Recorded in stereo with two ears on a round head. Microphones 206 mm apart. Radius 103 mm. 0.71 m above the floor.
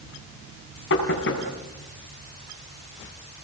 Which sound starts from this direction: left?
Knocking, at 0.9 s.